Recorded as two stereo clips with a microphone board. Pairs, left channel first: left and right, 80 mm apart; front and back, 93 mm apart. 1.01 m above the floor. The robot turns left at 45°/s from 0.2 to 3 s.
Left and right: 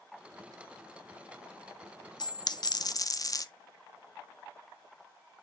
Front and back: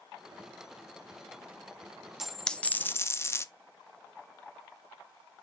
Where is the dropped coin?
95° left, 0.6 m; by 3.5 s 55° left, 0.6 m.